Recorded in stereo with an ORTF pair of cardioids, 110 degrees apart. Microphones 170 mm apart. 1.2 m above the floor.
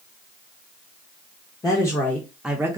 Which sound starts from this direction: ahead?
A woman speaking, at 1.6 s.